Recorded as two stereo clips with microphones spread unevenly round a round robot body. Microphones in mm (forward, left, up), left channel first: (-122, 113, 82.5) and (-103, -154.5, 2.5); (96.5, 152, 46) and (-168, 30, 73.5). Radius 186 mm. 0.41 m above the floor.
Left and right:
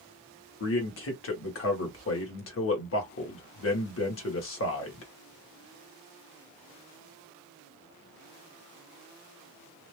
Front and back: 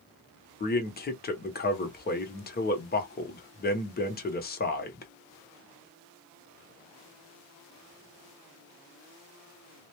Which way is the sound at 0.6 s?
50° left.